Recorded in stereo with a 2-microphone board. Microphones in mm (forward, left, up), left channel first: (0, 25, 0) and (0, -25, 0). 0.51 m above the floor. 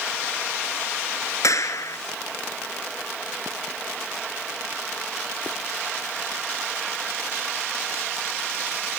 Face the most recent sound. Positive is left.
turn(degrees=80)